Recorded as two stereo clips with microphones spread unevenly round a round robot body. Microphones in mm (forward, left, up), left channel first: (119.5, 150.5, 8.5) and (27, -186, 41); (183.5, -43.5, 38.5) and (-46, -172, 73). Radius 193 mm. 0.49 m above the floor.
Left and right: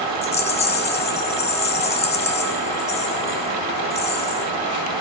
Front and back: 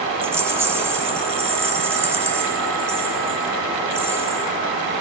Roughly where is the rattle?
Behind left.